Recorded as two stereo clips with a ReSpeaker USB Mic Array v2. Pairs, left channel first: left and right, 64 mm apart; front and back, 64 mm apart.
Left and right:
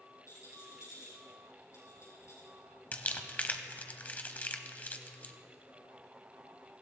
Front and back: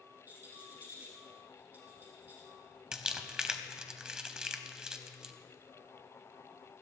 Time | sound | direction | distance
0.3 | a rattle | 125° left | 4.5 m
2.9 | crumpling | 115° left | 0.8 m